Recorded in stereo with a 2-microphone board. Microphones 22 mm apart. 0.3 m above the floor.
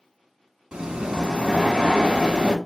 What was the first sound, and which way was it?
Breathing, 50° right (ahead or behind).